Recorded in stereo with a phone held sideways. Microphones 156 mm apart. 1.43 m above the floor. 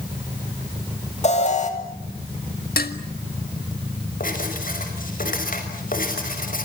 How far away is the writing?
About 5.5 m.